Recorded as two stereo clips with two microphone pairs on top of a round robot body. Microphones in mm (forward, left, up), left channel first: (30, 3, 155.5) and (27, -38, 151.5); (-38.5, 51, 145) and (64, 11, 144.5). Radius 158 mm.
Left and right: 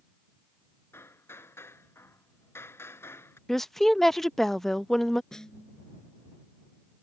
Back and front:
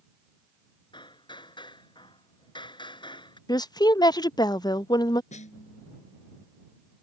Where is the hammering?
110° left.